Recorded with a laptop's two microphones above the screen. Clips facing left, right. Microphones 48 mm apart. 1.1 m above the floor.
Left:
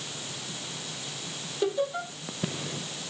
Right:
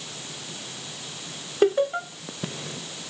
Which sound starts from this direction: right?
Laughter, at 1.6 s.